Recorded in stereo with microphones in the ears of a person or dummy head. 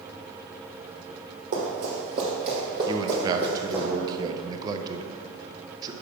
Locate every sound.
1.5 s running footsteps: 40° right (ahead or behind), 2.5 m; by 3.8 s 10° left (ahead or behind), 1.5 m
2.9 s a man speaking: 20° right (ahead or behind), 0.7 m